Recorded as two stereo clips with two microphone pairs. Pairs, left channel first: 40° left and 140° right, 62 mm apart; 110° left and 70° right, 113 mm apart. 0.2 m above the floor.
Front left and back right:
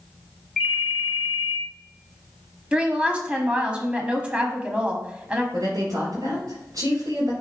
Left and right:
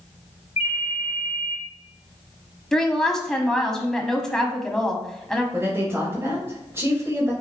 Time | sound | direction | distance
0.6 | a ringtone | 140° left | 2.5 m
2.7 | a woman speaking | 165° right | 1.0 m
5.5 | a woman speaking | 135° right | 3 m